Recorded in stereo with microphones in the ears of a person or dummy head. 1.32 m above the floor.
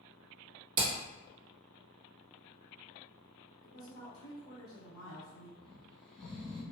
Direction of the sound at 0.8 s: 25° right (ahead or behind).